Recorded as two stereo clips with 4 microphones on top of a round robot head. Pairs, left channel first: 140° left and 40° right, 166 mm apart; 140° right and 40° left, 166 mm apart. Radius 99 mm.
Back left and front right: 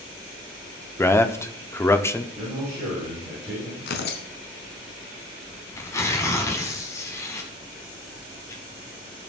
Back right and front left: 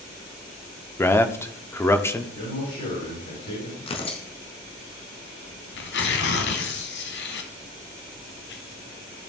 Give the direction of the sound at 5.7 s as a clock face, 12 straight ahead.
5 o'clock.